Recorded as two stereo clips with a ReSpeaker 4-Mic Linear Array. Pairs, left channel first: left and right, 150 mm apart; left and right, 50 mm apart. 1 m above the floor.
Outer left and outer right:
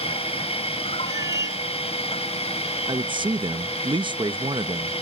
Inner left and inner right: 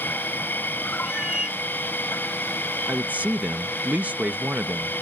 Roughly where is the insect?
Left.